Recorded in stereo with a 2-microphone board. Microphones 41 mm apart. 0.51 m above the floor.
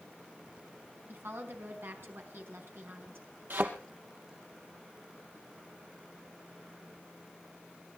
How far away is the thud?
About 2.5 m.